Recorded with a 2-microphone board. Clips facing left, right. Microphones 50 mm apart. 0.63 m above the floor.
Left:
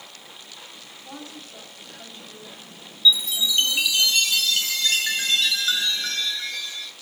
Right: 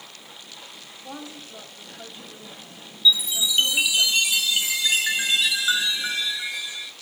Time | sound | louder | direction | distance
1.0 | a woman speaking | right 2 dB | 25° right (ahead or behind) | 3 m
3.0 | a chime | left 1 dB | 10° right (ahead or behind) | 0.8 m